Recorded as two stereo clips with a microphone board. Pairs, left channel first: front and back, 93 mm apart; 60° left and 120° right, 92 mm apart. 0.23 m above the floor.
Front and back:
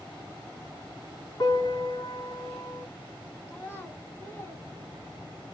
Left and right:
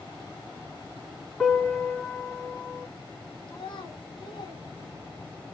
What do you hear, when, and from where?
1.4 s a piano: 20° right, 1.5 m
3.5 s a child speaking: 60° left, 1.1 m